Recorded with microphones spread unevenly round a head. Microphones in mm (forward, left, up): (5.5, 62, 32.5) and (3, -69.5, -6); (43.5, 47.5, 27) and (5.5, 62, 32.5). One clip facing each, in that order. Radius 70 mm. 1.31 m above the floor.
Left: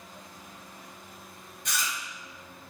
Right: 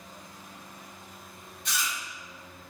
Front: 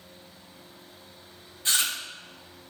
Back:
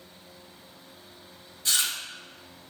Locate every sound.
1.6 s chewing: 40° left, 2.5 m